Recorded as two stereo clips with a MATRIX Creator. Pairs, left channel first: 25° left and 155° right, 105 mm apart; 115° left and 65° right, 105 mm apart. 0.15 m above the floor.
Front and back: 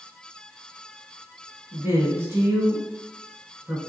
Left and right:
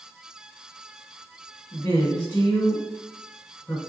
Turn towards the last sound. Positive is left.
turn(degrees=155)